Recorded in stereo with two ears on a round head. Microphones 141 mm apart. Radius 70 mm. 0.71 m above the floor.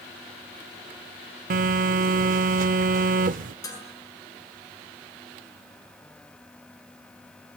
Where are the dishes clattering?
25° left (ahead or behind), 7.5 m.